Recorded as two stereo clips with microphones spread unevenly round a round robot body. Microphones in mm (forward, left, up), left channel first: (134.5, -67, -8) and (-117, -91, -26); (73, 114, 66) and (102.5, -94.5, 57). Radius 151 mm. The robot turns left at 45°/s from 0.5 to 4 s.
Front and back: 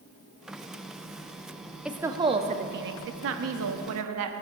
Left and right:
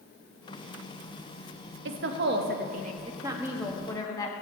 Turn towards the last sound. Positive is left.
turn(degrees=175)